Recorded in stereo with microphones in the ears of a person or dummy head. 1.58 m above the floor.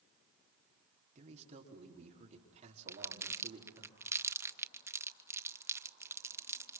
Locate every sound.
1.1 s a man speaking: 35° right (ahead or behind), 4.5 m
2.9 s crumpling: 10° right (ahead or behind), 0.7 m